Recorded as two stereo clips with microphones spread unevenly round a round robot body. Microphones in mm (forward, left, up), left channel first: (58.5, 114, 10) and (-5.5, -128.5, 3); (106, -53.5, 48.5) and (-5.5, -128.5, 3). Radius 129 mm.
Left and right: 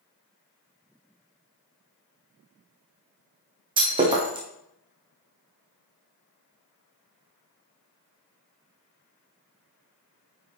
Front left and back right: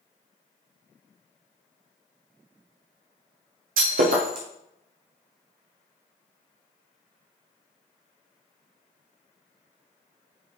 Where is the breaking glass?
175° right, 1.6 m.